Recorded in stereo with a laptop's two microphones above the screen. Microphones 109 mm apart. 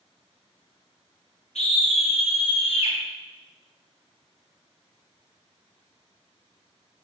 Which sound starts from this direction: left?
A scream, at 1.6 s.